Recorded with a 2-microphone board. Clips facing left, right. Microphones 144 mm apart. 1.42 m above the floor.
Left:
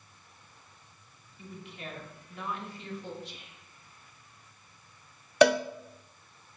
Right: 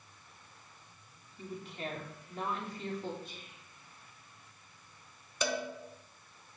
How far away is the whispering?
About 1.6 m.